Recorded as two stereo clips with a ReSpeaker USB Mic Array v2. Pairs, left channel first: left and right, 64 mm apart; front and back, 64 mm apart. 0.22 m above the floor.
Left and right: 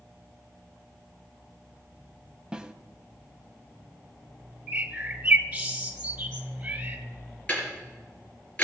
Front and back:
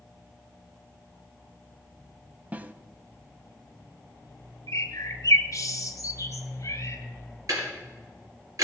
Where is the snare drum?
150° right, 0.5 m.